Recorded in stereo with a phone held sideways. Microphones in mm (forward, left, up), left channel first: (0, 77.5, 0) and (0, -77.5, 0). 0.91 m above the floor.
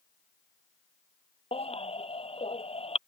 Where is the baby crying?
40° left (ahead or behind).